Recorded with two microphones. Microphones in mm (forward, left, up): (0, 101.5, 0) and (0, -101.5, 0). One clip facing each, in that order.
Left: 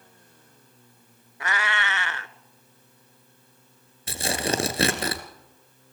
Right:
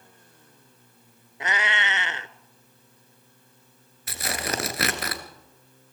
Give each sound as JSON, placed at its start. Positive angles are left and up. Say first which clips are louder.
{"t": 1.4, "sound": "a cat meowing", "louder": "even", "side_deg": -20, "distance_m": 0.7}
{"t": 4.1, "sound": "tearing paper", "louder": "left 4 dB", "side_deg": 30, "distance_m": 1.9}